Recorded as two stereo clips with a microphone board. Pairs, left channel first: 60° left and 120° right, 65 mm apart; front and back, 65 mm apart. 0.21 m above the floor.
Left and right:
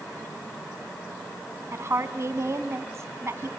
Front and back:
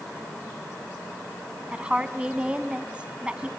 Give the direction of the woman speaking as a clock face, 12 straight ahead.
4 o'clock.